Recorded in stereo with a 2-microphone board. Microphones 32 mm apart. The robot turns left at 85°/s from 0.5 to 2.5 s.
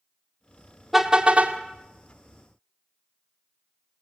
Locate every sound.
0.9 s a car horn: straight ahead, 2 m; by 1.6 s 55° right, 2 m